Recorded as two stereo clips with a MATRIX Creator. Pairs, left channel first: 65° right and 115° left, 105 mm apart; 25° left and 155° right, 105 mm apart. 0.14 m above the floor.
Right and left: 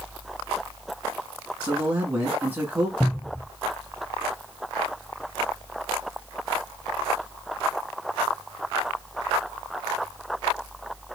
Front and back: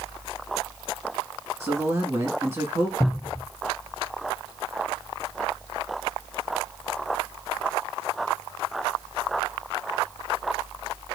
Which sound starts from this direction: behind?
A man speaking, at 1.6 s.